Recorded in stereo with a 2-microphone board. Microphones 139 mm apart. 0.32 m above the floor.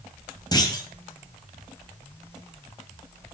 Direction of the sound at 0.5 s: 25° left (ahead or behind).